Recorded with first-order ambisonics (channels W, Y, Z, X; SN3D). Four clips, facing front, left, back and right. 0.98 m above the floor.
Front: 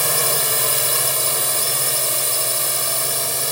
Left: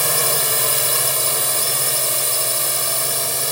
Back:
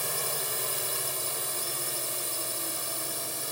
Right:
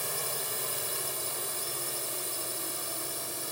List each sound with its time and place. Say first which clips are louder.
0.0 s a drone: left 15 dB, front 12 dB; 45° left